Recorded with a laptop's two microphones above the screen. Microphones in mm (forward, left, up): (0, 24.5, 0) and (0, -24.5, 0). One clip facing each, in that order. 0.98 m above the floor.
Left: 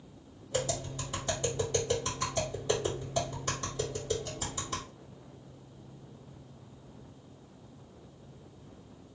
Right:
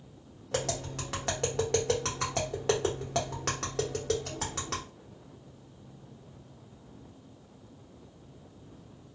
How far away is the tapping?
About 1.1 m.